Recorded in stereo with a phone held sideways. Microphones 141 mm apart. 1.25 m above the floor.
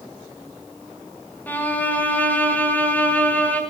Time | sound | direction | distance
1.5 | a violin | 10° left (ahead or behind) | 5 m